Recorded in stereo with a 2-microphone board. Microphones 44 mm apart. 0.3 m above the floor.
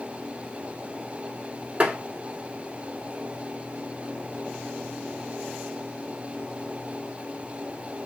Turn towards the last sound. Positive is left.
turn(degrees=-30)  # may be behind; listen again after turning